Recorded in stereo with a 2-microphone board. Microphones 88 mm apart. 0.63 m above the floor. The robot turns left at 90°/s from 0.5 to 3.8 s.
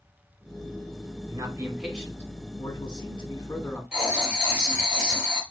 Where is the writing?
10° right (ahead or behind), 4 m.